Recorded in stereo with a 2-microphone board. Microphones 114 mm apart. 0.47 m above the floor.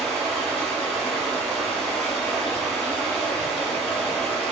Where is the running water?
5° left (ahead or behind), 0.9 m.